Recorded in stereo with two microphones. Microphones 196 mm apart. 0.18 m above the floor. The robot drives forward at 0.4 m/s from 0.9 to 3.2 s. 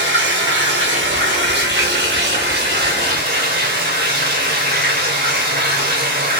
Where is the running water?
70° right (ahead or behind), 2 m; by 6.4 s 50° right (ahead or behind), 2.5 m.